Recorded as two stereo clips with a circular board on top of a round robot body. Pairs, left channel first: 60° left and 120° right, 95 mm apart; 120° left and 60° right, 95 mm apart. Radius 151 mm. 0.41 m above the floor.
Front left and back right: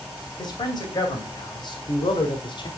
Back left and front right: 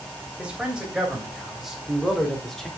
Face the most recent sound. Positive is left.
turn(degrees=35)